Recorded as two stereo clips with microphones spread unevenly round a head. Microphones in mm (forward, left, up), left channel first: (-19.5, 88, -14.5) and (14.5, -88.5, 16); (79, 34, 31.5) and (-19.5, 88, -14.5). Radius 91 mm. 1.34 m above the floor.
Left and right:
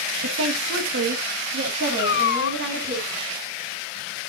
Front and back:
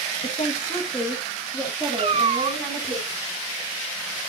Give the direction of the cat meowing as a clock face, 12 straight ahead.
8 o'clock.